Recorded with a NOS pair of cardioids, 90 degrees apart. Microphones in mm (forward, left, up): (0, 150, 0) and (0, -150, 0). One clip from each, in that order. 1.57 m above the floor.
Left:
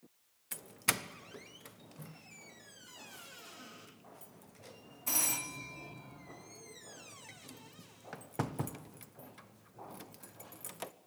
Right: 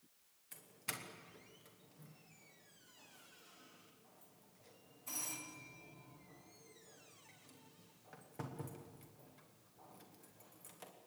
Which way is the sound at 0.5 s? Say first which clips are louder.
Left 12 dB; 65° left.